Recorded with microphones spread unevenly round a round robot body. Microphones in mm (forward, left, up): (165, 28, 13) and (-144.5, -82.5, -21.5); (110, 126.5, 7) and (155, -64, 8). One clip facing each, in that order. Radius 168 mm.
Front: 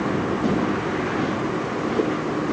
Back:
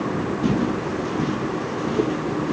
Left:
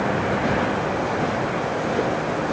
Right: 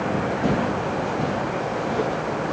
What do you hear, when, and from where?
0.4 s footsteps: 120° right, 1.1 m; by 2.5 s 135° left, 1.2 m